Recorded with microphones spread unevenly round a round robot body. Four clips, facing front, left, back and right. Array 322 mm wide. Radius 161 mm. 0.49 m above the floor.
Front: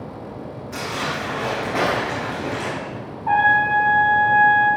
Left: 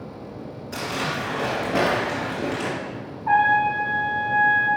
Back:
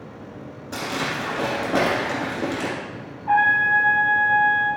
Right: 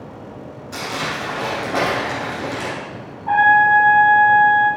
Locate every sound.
0.7 s crumpling: 175° left, 2.0 m
3.3 s a trumpet: 5° left, 2.5 m